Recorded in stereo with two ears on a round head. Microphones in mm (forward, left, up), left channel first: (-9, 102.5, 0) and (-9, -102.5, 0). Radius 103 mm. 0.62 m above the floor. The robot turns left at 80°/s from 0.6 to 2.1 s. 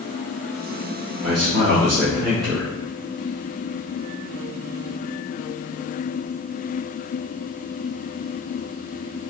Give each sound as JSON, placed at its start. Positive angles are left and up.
{"t": 1.2, "sound": "a man speaking", "azimuth_deg": -115, "distance_m": 1.0}